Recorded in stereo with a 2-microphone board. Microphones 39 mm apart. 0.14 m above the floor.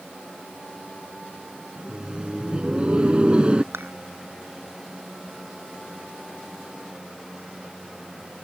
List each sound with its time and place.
1.8 s laughter: 25° right (ahead or behind)
3.7 s dishes clattering: 75° right (ahead or behind)